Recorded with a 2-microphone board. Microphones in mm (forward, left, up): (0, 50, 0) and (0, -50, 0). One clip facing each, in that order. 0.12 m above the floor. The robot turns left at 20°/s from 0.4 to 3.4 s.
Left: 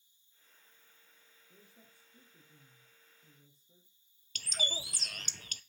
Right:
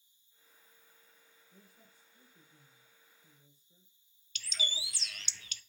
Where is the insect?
125° left, 5.5 m; by 5.7 s 65° left, 5.5 m.